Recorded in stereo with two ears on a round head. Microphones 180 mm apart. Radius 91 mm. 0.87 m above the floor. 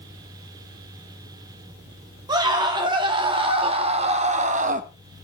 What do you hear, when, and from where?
2.3 s a scream: 20° right (ahead or behind), 3 m; by 4.9 s 40° right (ahead or behind), 1.4 m